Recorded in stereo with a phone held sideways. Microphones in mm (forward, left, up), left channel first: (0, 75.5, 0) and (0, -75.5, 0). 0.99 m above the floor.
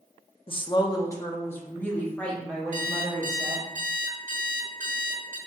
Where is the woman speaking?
40° left (ahead or behind), 0.5 m; by 3.7 s 5° left (ahead or behind), 2.0 m.